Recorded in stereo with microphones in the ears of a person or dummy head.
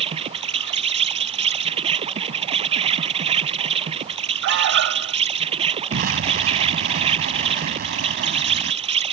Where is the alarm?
60° right (ahead or behind).